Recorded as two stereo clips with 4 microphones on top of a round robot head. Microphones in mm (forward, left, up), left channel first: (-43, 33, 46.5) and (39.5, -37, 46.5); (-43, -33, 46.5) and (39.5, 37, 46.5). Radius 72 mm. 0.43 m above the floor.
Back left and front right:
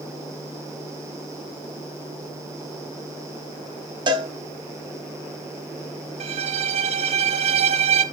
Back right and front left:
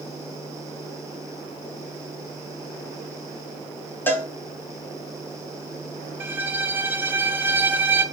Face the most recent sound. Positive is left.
turn(degrees=-30)